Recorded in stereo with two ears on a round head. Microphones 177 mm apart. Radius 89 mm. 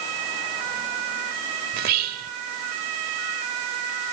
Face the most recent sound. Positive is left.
turn(degrees=-50)  # may be behind; listen again after turning